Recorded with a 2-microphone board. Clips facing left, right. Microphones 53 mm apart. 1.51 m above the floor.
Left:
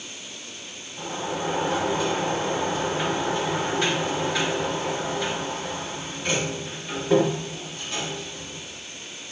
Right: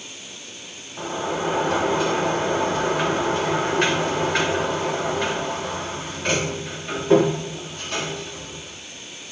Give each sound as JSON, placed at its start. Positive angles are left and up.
{"t": 1.0, "sound": "a sliding door", "side_deg": -50, "distance_m": 3.0}